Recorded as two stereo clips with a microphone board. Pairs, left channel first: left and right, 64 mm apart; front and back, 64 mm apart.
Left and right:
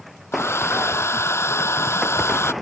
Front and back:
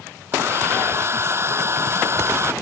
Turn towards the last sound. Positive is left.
turn(degrees=135)